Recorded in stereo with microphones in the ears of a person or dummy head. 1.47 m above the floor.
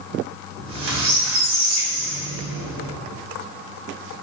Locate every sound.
0.6 s a squeak: 70° right (ahead or behind), 2 m